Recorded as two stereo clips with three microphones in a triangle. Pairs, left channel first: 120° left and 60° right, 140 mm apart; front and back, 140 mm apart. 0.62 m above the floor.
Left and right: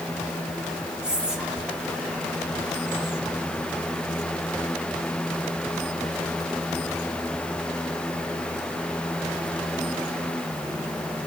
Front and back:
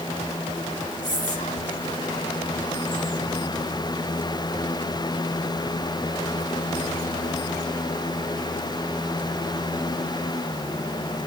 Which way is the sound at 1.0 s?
25° left.